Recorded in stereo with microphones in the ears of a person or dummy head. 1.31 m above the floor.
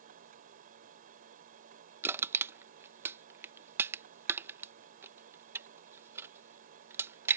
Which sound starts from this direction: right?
A machine running, at 0.0 s.